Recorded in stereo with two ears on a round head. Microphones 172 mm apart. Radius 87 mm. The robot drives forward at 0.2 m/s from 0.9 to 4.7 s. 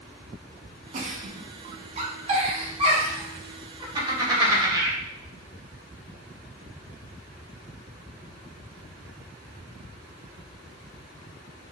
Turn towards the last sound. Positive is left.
turn(degrees=-25)  # may be behind; listen again after turning